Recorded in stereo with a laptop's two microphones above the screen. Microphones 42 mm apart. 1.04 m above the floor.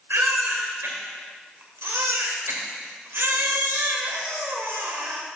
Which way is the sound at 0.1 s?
85° right.